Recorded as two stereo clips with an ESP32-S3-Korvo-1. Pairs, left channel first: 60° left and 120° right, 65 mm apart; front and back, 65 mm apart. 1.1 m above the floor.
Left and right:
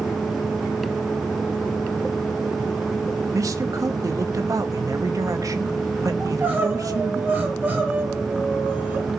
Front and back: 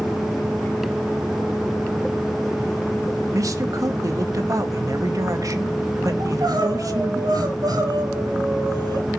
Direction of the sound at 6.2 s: Straight behind.